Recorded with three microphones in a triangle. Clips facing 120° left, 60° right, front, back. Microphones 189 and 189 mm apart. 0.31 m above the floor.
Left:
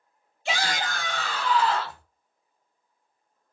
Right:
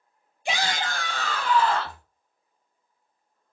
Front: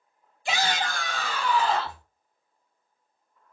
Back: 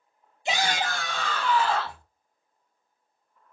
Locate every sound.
0.5 s a shout: 125° right, 1.1 m; by 2.0 s 60° right, 1.5 m